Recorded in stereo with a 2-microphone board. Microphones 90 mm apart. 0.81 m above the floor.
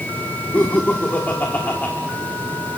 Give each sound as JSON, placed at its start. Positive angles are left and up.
{"t": 0.5, "sound": "laughter", "side_deg": 20, "distance_m": 1.7}